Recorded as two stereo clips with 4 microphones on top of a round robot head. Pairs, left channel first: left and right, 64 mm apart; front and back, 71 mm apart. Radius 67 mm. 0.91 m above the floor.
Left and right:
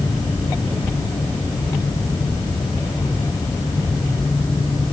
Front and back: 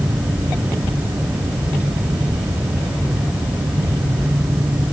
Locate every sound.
Only background noise.